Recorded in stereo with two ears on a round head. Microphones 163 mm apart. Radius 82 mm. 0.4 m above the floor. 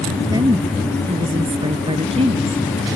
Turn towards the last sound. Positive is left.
turn(degrees=-35)  # may be behind; listen again after turning